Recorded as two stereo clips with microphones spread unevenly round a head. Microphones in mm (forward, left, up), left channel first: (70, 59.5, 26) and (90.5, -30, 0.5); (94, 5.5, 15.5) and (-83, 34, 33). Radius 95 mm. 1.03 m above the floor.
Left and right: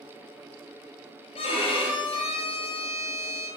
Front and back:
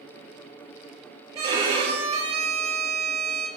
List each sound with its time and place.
1.4 s a violin: 110° left, 4 m